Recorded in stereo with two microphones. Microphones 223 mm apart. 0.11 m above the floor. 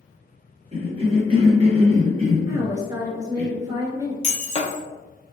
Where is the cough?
25° right (ahead or behind), 1.9 m.